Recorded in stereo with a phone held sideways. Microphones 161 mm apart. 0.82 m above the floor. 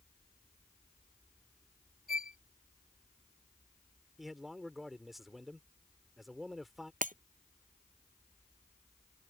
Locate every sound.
2.1 s a violin: 70° left (ahead or behind)
4.2 s a man speaking: centre (ahead or behind)
7.0 s breaking glass: 55° right (ahead or behind)